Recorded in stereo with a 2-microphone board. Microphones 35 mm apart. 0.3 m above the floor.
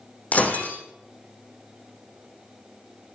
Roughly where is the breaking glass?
Left.